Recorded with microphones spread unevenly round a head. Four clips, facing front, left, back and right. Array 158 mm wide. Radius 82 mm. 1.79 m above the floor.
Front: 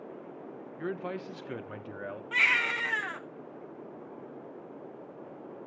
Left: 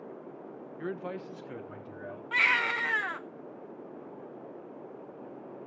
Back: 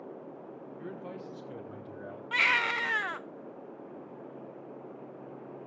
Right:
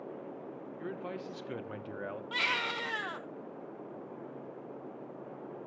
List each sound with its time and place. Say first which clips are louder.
0.8 s a man speaking: left 4 dB, front 8 dB; 10° left, 1.1 m; by 2.2 s 55° right, 1.4 m
2.3 s a baby crying: left 7 dB, back 1 dB; 150° left, 0.6 m